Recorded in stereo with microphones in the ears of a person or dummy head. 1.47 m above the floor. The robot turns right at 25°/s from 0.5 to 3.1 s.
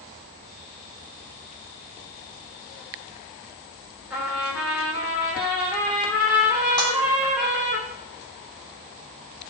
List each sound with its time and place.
4.1 s a trumpet: 5° right (ahead or behind), 1.6 m
6.8 s a clap: 5° left (ahead or behind), 2.5 m